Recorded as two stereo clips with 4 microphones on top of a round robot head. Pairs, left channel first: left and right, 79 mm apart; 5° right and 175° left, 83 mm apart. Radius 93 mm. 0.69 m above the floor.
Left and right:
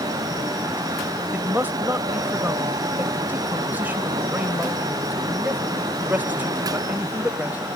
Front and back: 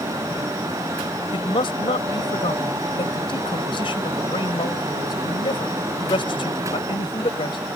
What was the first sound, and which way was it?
A man speaking, 20° right.